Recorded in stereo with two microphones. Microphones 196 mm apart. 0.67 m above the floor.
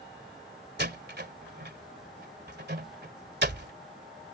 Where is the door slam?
60° right (ahead or behind).